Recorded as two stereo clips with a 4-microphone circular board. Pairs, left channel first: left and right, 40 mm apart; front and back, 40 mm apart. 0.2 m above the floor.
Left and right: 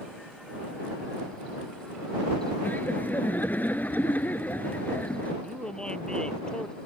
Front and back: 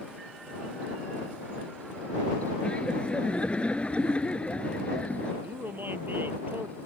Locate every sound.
2.6 s laughter: 55° left
5.4 s a man speaking: 155° left